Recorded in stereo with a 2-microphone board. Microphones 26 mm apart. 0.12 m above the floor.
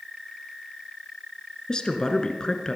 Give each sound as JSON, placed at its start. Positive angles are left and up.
{"t": 1.7, "sound": "a woman speaking", "side_deg": 30, "distance_m": 1.3}